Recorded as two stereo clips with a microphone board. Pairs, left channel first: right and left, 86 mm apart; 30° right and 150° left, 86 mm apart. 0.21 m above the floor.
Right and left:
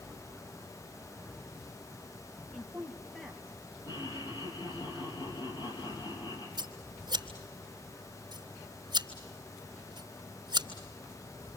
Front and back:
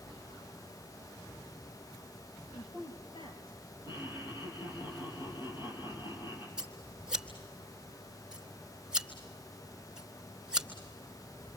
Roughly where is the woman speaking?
Ahead.